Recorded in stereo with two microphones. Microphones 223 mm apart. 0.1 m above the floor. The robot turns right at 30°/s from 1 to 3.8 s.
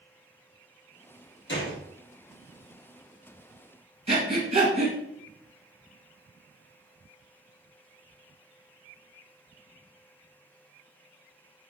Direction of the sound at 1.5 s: 50° left (ahead or behind).